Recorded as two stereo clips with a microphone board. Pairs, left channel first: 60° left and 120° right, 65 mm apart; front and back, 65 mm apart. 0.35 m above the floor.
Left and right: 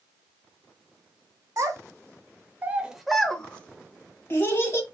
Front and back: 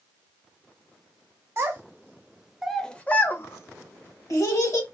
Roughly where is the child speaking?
Behind right.